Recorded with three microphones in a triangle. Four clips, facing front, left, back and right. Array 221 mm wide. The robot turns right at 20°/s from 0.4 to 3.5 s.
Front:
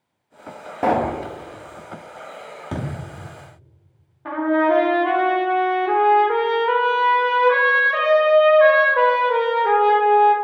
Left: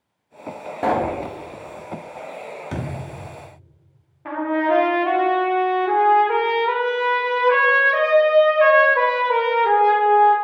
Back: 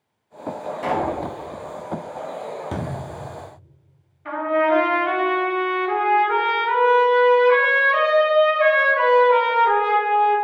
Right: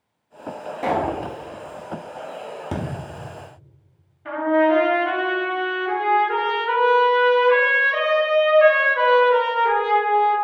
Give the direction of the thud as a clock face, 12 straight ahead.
3 o'clock.